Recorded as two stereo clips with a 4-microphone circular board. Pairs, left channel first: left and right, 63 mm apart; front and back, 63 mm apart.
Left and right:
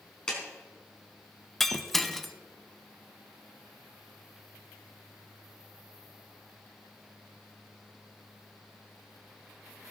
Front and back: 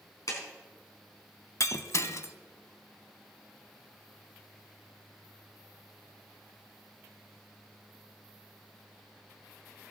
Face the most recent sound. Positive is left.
turn(degrees=5)